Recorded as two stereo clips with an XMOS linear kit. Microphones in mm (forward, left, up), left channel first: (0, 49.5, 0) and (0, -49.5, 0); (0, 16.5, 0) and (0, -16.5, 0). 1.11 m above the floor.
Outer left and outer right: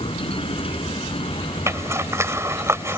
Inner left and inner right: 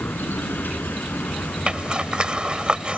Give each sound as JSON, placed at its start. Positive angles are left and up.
{"t": 0.0, "sound": "a vehicle", "side_deg": 75}
{"t": 1.7, "sound": "a zipper", "side_deg": -30}